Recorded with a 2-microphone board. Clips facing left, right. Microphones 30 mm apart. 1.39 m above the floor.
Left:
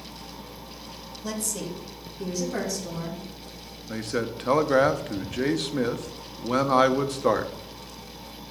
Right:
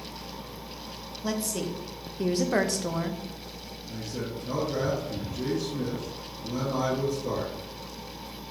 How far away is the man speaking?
About 0.7 m.